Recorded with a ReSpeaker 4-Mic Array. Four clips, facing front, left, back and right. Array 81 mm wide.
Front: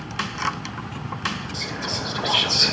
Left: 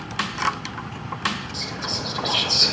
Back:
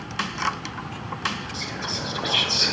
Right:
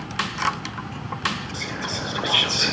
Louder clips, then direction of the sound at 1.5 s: Right 1 dB, front 2 dB; 85° right.